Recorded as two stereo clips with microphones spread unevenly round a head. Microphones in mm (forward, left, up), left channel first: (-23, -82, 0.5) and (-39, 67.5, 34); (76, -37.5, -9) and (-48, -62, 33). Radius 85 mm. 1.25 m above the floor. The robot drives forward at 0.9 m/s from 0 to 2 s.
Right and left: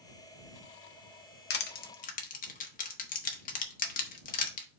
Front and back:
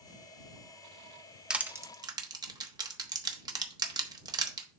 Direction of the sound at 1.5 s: 95° right.